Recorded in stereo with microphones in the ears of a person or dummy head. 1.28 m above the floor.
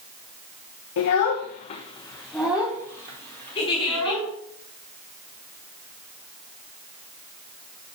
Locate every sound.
1.0 s a child speaking: 70° left (ahead or behind), 0.6 m; by 4.3 s 35° right (ahead or behind), 1.5 m
3.5 s a giggle: 30° left (ahead or behind), 4 m